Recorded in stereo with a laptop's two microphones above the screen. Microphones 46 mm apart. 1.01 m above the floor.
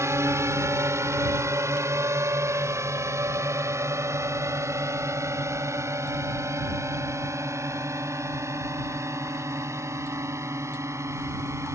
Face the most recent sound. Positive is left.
turn(degrees=-70)  # may be behind; listen again after turning